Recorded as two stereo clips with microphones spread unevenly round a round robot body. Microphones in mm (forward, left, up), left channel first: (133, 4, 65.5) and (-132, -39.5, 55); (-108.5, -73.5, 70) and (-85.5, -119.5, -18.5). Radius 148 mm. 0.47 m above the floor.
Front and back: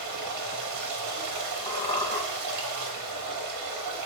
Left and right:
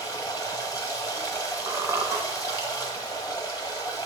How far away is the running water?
About 2.5 m.